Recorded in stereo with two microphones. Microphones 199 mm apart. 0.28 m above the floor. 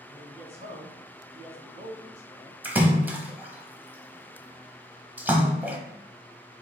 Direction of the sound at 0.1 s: 35° right (ahead or behind).